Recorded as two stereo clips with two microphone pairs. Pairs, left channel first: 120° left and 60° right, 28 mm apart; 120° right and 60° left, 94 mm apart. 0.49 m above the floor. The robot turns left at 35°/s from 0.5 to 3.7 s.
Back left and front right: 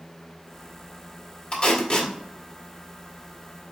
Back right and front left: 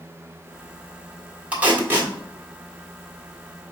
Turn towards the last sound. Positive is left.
turn(degrees=45)